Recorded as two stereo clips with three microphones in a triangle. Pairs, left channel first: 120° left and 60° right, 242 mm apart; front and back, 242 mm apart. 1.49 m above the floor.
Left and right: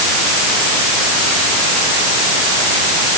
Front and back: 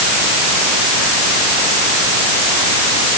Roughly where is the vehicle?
No vehicle in this recording.